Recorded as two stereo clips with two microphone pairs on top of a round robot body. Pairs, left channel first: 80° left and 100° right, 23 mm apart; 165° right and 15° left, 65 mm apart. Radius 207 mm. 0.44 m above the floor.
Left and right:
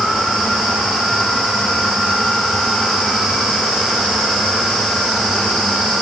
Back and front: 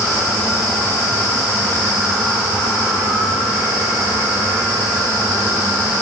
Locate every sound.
Only background noise.